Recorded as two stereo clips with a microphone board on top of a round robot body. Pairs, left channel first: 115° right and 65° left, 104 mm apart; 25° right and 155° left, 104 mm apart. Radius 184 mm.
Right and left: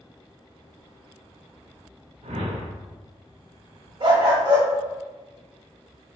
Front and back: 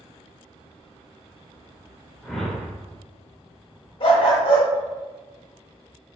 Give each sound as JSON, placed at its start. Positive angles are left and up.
{"t": 2.2, "sound": "a whoosh", "azimuth_deg": 65, "distance_m": 0.9}
{"t": 4.0, "sound": "a dog barking", "azimuth_deg": 20, "distance_m": 0.8}